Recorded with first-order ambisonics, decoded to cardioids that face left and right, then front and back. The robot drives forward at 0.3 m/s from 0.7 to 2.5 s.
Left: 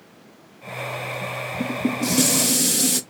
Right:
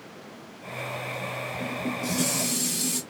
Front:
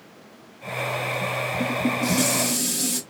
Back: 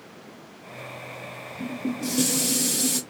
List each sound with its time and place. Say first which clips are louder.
1.6 s dishes clattering: left 8 dB, front 3 dB; 70° left, 0.6 m; by 3.0 s 100° left, 0.6 m